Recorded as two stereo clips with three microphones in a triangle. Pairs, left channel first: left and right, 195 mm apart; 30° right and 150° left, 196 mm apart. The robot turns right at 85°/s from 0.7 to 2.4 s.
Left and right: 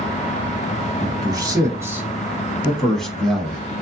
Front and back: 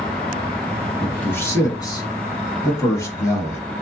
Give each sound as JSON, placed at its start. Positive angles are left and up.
{"t": 1.0, "sound": "a man speaking", "azimuth_deg": -110, "distance_m": 1.0}